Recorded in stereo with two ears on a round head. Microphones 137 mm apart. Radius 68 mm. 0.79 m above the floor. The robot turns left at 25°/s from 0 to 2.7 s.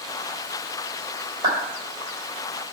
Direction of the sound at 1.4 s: 30° right (ahead or behind).